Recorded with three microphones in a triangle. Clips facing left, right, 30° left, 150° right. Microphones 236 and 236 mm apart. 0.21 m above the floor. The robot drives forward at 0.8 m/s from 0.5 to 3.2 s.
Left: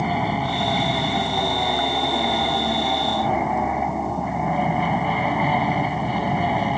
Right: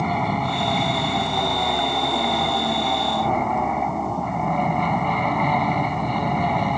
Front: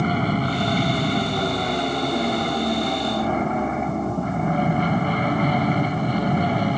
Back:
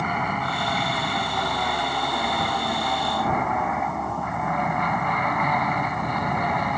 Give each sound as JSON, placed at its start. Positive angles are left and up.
{"t": 0.0, "sound": "an aircraft", "azimuth_deg": 5}